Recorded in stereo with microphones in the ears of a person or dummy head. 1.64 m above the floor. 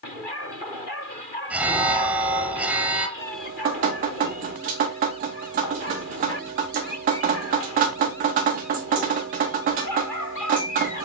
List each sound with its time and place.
1.5 s an alarm: centre (ahead or behind), 0.6 m
3.2 s dripping: 50° right (ahead or behind), 0.6 m